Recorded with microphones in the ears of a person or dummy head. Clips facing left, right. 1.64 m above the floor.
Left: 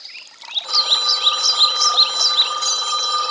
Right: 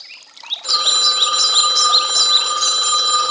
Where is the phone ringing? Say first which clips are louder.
Right 2 dB; 30° right (ahead or behind).